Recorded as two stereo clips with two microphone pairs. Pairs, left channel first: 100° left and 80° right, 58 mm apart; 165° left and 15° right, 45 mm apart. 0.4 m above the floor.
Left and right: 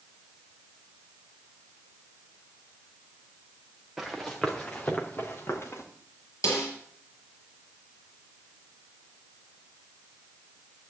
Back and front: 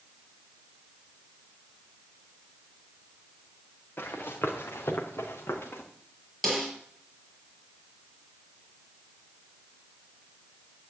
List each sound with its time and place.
4.0 s running footsteps: 170° right, 3 m; by 5.8 s 135° left, 3.5 m
6.4 s a snare drum: 75° left, 5 m